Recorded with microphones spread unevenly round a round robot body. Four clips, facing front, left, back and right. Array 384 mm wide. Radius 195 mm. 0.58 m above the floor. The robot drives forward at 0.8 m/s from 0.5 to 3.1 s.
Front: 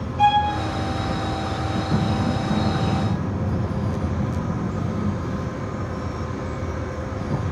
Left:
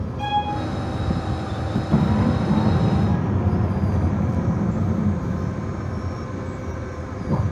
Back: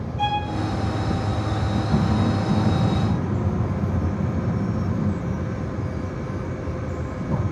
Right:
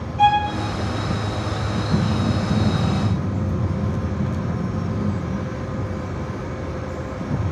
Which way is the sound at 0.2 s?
65° right.